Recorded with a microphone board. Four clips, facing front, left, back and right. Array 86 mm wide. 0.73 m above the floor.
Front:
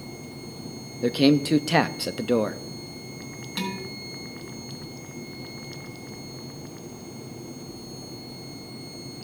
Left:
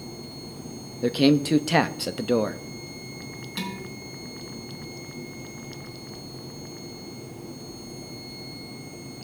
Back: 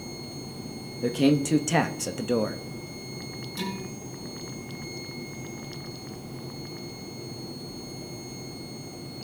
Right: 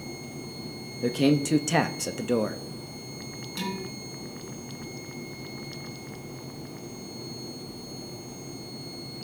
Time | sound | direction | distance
1.0 | a man speaking | 40° left | 0.5 m
3.6 | dishes clattering | 20° left | 5 m